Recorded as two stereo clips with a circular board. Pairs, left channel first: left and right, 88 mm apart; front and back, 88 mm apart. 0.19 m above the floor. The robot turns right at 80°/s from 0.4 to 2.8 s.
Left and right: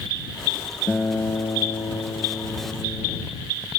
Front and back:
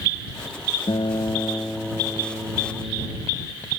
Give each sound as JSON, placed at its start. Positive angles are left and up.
{"t": 0.9, "sound": "a guitar", "azimuth_deg": 10}